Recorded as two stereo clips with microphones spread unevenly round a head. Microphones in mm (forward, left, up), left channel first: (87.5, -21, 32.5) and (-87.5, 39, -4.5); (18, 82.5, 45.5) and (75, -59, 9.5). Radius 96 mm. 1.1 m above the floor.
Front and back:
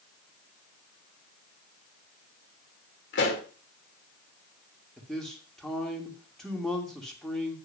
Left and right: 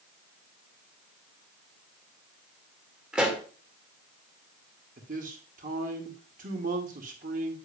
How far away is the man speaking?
About 1.7 m.